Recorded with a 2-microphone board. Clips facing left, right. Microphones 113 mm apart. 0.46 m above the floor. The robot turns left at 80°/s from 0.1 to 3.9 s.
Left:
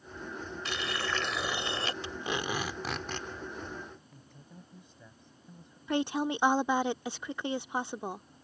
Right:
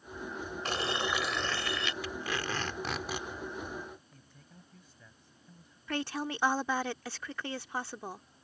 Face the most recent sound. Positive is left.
turn(degrees=20)  # may be behind; listen again after turning